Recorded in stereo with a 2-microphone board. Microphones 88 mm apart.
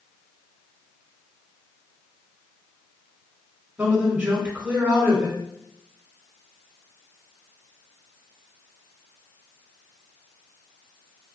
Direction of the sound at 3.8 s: 20° right (ahead or behind).